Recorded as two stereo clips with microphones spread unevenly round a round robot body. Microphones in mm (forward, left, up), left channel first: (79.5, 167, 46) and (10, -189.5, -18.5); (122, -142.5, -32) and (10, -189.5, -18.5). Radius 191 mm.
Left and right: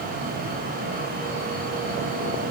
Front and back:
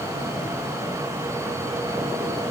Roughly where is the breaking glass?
I don't hear breaking glass.